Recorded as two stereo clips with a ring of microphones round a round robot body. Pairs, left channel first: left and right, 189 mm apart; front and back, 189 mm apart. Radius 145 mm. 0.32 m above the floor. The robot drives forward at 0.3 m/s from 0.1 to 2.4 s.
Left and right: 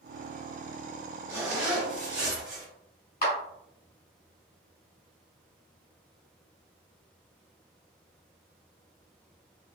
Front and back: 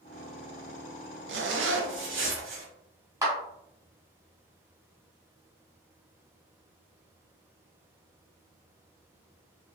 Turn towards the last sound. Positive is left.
turn(degrees=110)